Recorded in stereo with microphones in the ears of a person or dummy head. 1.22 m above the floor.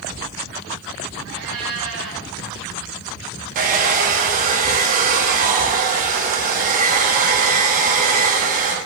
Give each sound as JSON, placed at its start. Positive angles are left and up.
{"t": 1.2, "sound": "a cat meowing", "side_deg": -80, "distance_m": 3.5}
{"t": 3.5, "sound": "a hair dryer", "side_deg": -45, "distance_m": 1.1}